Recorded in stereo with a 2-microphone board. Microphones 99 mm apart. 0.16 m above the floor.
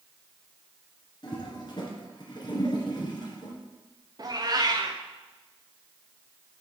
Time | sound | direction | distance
1.2 | a toilet flushing | 50° left (ahead or behind) | 2.5 m
4.2 | a cat meowing | 40° right (ahead or behind) | 1.8 m